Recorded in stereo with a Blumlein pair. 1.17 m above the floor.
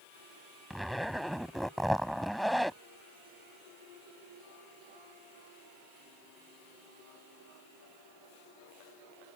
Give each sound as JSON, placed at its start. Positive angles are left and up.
{"t": 0.7, "sound": "a zipper", "azimuth_deg": 0}